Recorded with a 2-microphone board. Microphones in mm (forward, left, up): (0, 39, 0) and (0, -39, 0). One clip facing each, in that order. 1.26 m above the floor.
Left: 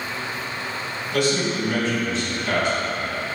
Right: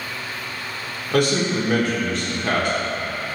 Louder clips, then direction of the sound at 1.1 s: Right 3 dB; 55° right (ahead or behind).